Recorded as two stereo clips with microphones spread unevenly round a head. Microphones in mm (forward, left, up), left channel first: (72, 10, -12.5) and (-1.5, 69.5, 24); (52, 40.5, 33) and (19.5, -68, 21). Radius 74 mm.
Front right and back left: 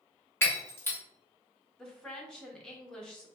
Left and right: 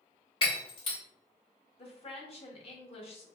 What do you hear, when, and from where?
0.4 s breaking glass: 30° left, 1.5 m
1.8 s a woman speaking: 40° left, 1.4 m